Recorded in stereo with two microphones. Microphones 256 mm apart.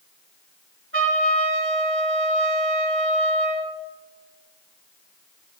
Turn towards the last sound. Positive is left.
turn(degrees=-50)  # may be behind; listen again after turning